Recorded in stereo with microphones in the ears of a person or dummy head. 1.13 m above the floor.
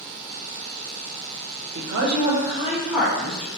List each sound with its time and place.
1.8 s a woman speaking: 70° right (ahead or behind), 0.8 m; by 3.5 s 10° left (ahead or behind), 1.9 m